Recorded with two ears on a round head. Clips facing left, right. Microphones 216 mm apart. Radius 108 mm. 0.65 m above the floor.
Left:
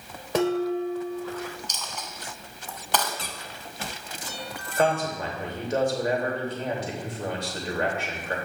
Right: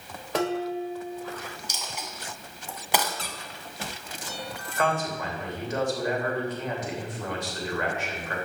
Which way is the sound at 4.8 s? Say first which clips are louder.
Left 3 dB; 30° left (ahead or behind).